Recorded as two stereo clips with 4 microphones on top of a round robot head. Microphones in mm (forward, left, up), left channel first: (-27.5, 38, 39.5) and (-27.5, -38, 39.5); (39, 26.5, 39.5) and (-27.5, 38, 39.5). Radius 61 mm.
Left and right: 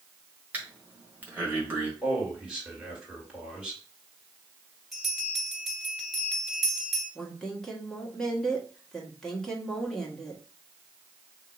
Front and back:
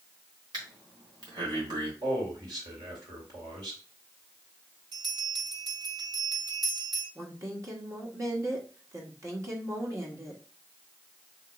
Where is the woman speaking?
170° left, 1.5 m.